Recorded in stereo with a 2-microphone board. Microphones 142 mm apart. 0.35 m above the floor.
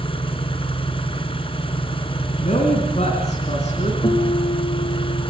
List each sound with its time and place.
0.0 s an engine running: 40° left (ahead or behind), 2.5 m
2.4 s a woman speaking: 50° left (ahead or behind), 3.5 m
4.0 s a guitar: 40° left (ahead or behind), 5 m